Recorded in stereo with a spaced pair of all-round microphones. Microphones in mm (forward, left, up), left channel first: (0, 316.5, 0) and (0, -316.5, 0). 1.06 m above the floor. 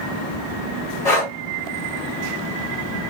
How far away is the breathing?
About 2.0 m.